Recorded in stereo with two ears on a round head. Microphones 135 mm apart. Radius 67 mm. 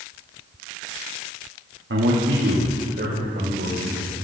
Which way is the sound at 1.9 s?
85° right.